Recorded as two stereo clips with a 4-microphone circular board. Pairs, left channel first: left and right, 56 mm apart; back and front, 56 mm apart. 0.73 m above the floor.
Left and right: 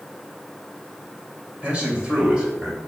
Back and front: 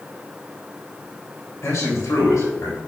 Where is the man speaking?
155° right, 3 m; by 2.8 s 170° right, 3.5 m.